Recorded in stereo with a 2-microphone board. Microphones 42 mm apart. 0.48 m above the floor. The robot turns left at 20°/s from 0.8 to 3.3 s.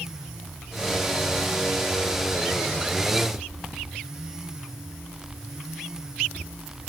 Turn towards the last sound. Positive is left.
No sound to turn to.